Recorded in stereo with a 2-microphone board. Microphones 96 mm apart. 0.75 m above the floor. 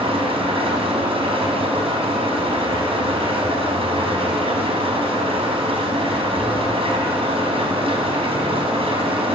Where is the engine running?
80° right, 5 m.